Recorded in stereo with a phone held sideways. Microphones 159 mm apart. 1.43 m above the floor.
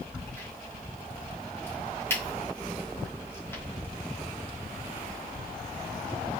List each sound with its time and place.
0.1 s a crack: 15° left (ahead or behind), 2 m